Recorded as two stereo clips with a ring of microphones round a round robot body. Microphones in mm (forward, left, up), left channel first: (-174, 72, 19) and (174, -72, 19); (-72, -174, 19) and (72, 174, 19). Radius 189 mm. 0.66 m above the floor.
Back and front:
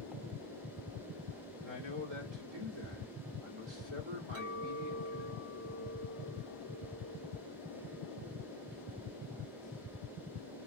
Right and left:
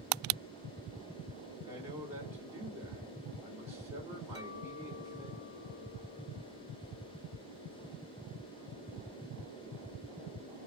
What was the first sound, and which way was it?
A man speaking, 15° right.